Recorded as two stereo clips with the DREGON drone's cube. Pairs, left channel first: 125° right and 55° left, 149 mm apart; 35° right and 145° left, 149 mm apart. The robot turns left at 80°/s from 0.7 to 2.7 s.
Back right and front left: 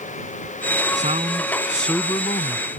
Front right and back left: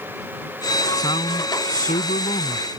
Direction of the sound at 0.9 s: 30° left.